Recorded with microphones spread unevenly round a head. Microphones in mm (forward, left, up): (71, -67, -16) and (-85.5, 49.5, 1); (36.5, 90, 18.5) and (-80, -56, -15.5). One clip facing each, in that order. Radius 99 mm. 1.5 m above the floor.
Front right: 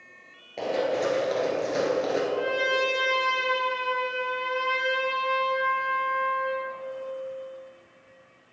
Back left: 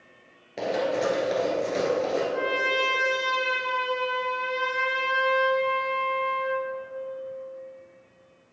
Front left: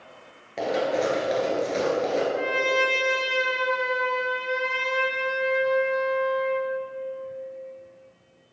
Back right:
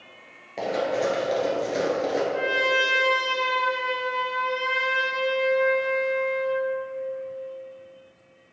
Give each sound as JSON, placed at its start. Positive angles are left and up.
{"t": 0.6, "sound": "running footsteps", "azimuth_deg": 110, "distance_m": 1.6}
{"t": 2.3, "sound": "a trumpet", "azimuth_deg": -150, "distance_m": 1.6}